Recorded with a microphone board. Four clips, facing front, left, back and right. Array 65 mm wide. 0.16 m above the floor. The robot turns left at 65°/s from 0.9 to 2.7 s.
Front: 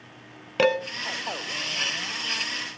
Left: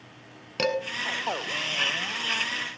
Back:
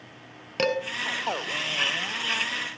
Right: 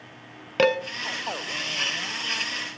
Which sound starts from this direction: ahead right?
Dishes clattering, at 0.6 s.